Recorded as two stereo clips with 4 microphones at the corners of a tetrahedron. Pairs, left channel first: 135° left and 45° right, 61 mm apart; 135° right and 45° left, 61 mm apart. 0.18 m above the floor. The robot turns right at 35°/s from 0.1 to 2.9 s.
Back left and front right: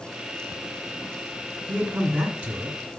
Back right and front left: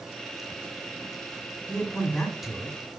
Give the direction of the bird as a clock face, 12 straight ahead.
No bird in this recording.